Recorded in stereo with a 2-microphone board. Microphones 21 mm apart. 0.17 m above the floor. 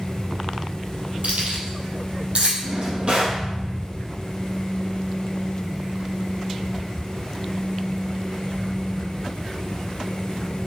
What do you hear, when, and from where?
1.2 s keys jangling: 65° right (ahead or behind), 3 m; by 2.5 s 50° right (ahead or behind), 3.5 m
2.6 s a drawer: 45° right (ahead or behind), 3.5 m